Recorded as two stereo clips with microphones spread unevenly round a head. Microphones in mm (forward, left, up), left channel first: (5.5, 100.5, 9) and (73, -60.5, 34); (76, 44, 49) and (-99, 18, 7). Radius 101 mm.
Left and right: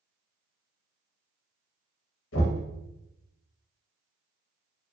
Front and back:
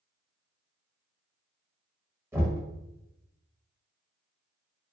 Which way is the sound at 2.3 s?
110° left.